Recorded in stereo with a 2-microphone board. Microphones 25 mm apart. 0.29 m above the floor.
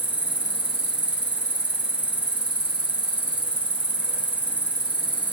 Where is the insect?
80° right, 0.7 m.